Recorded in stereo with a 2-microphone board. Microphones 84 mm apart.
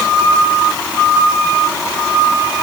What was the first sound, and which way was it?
Only background noise.